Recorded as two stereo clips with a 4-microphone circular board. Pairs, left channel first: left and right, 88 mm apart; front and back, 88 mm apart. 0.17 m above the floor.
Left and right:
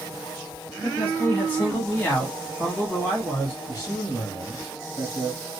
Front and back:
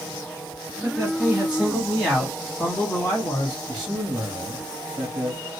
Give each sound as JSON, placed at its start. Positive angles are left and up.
{"t": 0.8, "sound": "a man speaking", "azimuth_deg": 140, "distance_m": 1.5}
{"t": 3.7, "sound": "a man speaking", "azimuth_deg": 100, "distance_m": 1.5}